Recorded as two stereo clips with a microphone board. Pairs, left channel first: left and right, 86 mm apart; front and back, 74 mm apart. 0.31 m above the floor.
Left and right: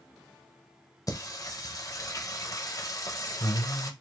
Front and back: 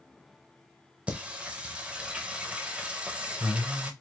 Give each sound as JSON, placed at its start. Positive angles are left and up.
{"t": 1.1, "sound": "singing", "azimuth_deg": 110, "distance_m": 0.7}